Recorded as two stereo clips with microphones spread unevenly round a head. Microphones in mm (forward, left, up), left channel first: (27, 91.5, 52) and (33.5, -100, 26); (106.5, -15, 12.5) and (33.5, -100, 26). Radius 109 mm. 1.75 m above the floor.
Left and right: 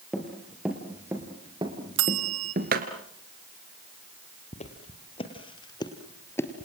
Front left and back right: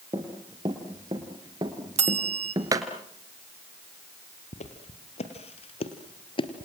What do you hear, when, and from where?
0.1 s running footsteps: 175° left, 3 m; by 2.9 s 120° right, 2 m
2.0 s a bell: 115° right, 1.8 m
4.5 s footsteps: 45° left, 3.5 m; by 6.6 s 25° left, 2 m